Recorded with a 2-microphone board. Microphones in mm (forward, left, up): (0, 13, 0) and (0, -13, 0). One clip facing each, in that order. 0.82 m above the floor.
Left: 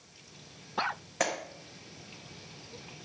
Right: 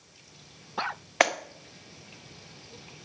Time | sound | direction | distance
1.2 | a clap | 45° right (ahead or behind) | 1.2 m